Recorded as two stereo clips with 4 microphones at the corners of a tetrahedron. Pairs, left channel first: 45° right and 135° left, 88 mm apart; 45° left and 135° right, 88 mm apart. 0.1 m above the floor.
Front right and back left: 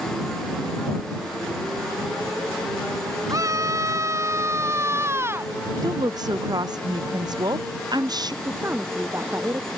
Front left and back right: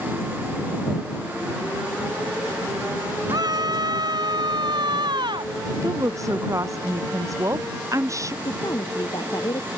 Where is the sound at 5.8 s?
175° left.